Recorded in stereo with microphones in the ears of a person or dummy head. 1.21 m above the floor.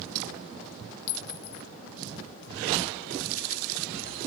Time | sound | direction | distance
1.1 | a clink | 70° left (ahead or behind) | 0.6 m